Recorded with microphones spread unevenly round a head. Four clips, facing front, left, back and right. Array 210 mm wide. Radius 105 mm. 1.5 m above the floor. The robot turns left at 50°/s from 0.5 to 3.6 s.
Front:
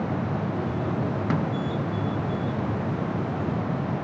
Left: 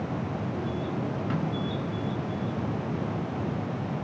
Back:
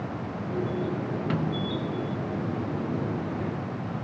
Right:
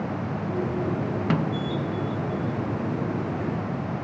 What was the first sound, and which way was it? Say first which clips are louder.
A snare drum: right 7 dB, front 1 dB; 70° right.